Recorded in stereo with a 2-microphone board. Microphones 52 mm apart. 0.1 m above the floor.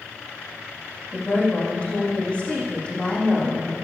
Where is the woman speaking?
25° left (ahead or behind), 5.5 m.